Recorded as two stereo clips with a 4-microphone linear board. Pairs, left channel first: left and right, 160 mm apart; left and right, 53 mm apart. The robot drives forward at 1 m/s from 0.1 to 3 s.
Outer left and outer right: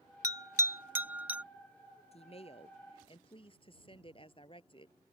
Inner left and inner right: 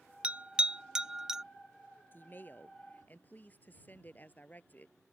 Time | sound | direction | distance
0.2 | a bell | 20° right (ahead or behind) | ?
2.1 | a woman speaking | 40° left (ahead or behind) | ?